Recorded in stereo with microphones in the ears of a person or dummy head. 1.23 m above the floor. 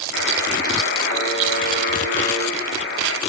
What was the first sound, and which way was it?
A buzzer, 60° left (ahead or behind).